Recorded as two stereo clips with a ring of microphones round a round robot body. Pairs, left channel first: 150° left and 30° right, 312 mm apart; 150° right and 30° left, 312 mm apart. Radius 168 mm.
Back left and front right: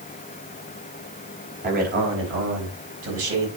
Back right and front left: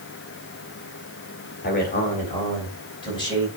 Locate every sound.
1.6 s a man speaking: 90° right, 2.5 m; by 3.5 s 70° right, 4.5 m